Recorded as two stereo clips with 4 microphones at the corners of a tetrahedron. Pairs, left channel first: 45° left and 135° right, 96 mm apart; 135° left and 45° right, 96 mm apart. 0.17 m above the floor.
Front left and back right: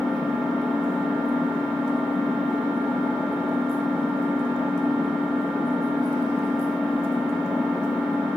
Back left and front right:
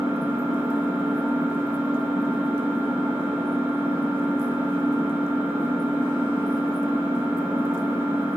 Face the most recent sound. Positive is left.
turn(degrees=-25)